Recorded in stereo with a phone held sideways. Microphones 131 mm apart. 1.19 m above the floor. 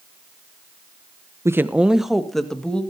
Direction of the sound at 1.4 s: 25° right (ahead or behind).